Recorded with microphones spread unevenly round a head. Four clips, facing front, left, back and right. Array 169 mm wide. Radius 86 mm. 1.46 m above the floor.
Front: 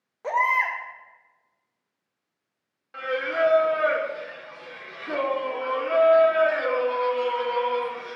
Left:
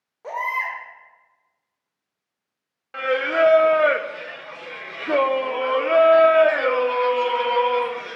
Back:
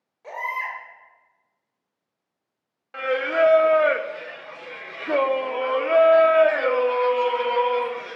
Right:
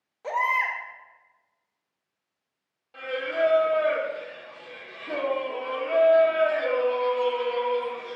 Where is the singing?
100° left, 0.6 m.